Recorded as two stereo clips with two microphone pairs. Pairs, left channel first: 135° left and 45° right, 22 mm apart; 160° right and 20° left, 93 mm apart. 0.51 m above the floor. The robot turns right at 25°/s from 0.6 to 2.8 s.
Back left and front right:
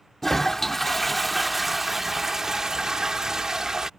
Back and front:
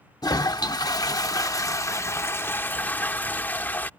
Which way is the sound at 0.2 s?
150° right.